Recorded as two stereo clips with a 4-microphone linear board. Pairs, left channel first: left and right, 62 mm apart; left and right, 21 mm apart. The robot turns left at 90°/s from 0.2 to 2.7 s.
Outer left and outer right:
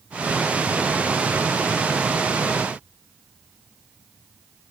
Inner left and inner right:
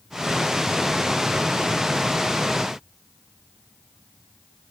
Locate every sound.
Only background noise.